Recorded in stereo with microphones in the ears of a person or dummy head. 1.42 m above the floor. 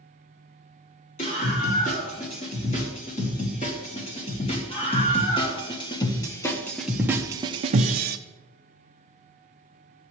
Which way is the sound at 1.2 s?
35° left (ahead or behind).